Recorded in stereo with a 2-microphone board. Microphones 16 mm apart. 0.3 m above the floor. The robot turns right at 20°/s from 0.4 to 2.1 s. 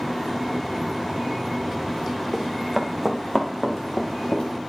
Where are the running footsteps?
35° right (ahead or behind), 1.5 m; by 4.5 s 65° left (ahead or behind), 2 m.